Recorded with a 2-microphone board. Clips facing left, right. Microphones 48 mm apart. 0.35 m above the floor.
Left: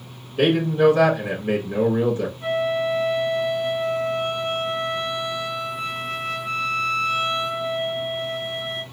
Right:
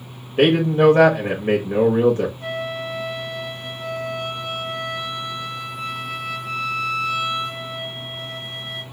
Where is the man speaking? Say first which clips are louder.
Right 2 dB; 40° right (ahead or behind), 1.0 m.